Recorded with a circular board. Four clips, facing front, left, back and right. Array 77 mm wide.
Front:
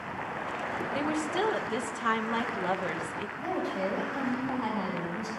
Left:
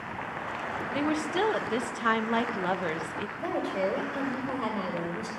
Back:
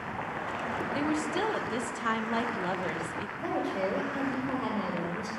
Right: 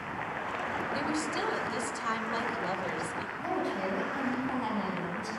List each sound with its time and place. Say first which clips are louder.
0.9 s a woman speaking: left 7 dB, even; 80° left, 0.6 m
3.4 s a woman speaking: left 3 dB, back 1 dB; 115° left, 2.5 m